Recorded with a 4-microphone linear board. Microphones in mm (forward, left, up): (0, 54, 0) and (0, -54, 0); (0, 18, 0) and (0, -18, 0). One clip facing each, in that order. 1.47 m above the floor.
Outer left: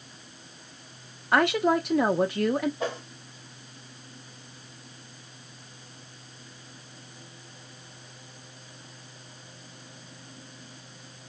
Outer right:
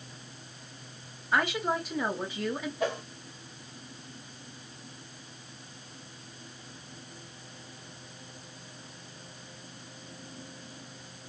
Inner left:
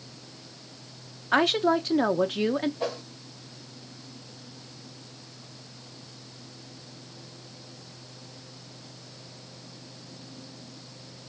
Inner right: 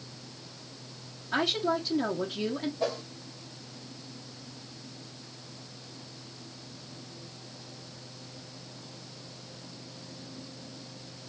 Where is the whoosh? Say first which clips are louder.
Outer right 1 dB, even; 30° left (ahead or behind), 2.5 m.